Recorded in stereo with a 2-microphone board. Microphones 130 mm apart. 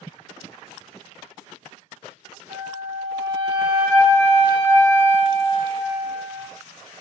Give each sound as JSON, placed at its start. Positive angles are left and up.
{"t": 2.5, "sound": "a flute", "side_deg": -10, "distance_m": 1.3}